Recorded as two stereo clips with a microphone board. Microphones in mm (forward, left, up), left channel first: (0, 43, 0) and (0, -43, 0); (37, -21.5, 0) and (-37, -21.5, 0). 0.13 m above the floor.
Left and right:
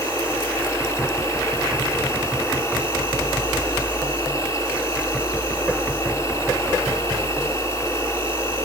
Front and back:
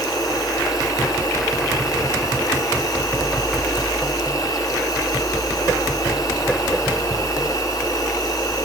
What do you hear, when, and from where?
0.0 s an insect: 40° left, 8 m